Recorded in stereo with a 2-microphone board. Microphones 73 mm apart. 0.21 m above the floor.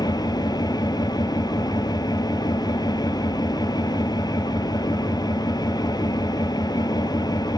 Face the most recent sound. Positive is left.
turn(degrees=70)  # may be behind; listen again after turning